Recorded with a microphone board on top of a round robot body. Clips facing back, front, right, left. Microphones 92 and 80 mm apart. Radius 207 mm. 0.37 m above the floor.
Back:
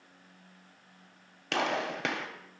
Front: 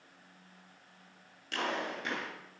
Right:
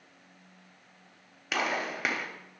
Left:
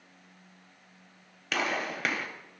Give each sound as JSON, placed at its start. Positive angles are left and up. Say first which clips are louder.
{"t": 1.5, "sound": "a gunshot", "louder": "back 5 dB, even", "azimuth_deg": -175, "distance_m": 1.3}